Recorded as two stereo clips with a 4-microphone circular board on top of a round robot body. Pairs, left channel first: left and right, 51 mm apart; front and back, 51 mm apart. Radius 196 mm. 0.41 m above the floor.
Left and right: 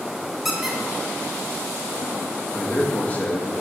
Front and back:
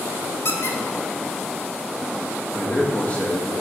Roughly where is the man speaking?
Ahead left.